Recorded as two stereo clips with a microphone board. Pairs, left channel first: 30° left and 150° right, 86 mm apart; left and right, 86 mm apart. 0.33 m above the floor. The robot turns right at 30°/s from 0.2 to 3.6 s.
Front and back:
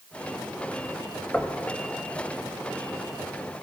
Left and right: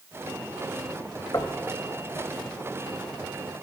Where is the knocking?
95° left, 1.2 m; by 1.6 s 105° left, 1.2 m.